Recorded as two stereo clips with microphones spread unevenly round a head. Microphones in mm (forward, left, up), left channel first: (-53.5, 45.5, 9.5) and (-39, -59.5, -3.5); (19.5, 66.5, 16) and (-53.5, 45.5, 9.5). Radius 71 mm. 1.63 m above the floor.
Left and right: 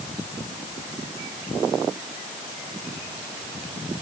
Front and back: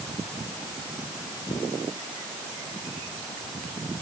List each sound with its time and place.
Only background noise.